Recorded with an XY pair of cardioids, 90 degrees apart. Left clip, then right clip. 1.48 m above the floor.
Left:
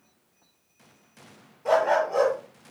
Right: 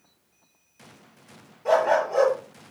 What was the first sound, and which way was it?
A dog barking, 5° left.